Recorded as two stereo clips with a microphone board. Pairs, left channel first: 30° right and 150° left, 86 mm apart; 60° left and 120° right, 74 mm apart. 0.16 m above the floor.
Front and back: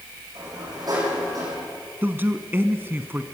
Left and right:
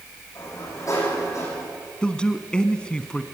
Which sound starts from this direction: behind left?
A man speaking, at 2.0 s.